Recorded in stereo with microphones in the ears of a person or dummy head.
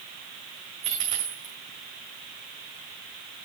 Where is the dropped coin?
30° right (ahead or behind), 2 m.